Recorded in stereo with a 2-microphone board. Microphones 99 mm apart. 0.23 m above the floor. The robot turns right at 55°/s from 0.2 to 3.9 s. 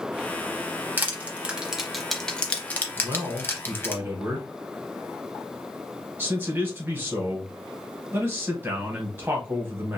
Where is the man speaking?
90° right, 1.1 m; by 10.0 s 40° right, 1.1 m.